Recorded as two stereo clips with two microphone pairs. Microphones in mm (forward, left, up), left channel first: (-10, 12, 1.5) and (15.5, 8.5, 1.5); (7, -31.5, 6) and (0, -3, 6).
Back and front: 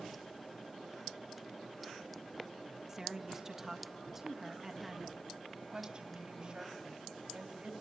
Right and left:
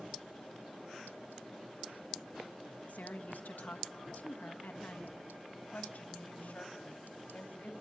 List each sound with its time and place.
2.9 s a woman speaking: 85° right, 1.4 m
5.5 s a woman speaking: 65° right, 2 m